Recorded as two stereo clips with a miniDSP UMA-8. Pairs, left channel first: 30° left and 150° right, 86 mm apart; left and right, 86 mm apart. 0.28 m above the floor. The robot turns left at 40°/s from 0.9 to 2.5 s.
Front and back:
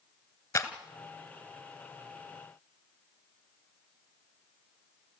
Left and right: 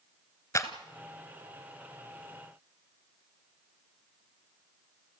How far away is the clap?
About 1.4 m.